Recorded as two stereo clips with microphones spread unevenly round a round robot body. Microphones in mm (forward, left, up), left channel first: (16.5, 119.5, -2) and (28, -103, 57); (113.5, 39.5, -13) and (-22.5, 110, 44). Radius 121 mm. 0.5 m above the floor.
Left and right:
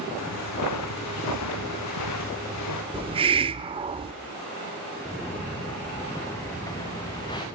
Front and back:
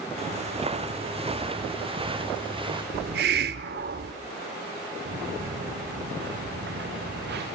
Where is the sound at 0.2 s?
110° left, 2.5 m; by 2.8 s 100° left, 3.5 m.